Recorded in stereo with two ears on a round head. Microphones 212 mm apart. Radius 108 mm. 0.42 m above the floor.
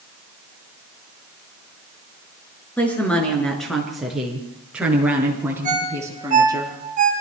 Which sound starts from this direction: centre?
A woman speaking, at 2.8 s.